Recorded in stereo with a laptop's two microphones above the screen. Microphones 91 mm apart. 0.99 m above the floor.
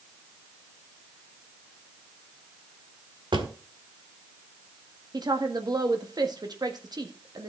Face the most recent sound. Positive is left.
turn(degrees=-50)  # may be behind; listen again after turning